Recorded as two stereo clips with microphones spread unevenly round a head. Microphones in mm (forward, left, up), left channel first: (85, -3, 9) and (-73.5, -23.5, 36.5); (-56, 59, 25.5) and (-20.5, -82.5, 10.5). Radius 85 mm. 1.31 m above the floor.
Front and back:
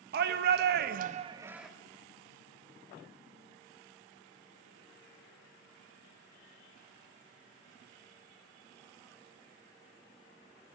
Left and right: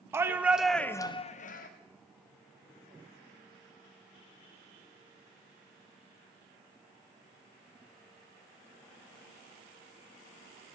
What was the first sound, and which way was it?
A shout, 145° right.